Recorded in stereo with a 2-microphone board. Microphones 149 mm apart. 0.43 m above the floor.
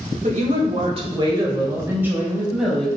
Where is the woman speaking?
55° right (ahead or behind), 1.8 m; by 2.9 s centre (ahead or behind), 2 m.